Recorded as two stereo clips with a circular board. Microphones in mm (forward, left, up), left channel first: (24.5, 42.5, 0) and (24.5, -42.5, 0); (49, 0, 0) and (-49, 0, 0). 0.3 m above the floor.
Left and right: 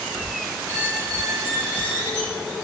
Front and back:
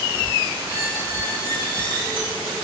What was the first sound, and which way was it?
A squeak, 20° left.